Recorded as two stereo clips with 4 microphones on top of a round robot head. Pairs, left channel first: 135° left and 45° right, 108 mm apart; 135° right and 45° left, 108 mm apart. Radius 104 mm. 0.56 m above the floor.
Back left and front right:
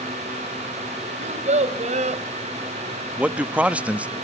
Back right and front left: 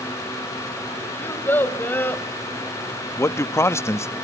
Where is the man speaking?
105° right, 0.6 m.